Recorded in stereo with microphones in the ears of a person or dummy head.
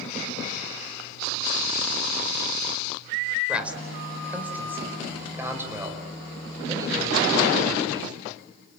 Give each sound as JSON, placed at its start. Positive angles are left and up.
{"t": 3.5, "sound": "a man speaking", "side_deg": -5, "distance_m": 5.5}